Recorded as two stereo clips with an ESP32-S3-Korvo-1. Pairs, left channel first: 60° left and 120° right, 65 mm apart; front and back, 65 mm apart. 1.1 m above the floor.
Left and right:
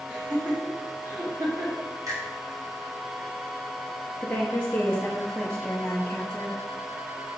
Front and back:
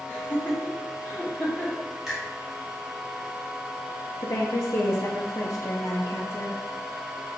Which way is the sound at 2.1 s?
95° right.